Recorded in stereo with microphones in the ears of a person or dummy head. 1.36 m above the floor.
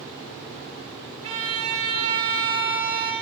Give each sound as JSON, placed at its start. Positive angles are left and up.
{"t": 1.2, "sound": "a violin", "side_deg": -30, "distance_m": 1.6}